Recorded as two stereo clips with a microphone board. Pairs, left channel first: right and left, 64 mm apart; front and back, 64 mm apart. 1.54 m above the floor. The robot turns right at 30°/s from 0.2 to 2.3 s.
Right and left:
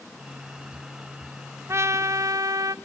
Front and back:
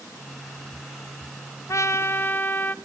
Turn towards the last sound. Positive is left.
turn(degrees=60)